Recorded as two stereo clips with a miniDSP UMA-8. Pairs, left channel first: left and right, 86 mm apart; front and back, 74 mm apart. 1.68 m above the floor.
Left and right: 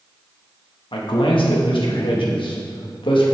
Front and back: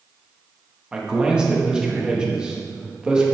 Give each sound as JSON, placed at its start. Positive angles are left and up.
{"t": 0.9, "sound": "a man speaking", "azimuth_deg": 100, "distance_m": 2.0}